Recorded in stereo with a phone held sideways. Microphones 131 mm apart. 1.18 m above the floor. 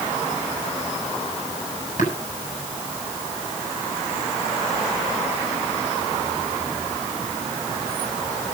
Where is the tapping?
85° left, 8 m.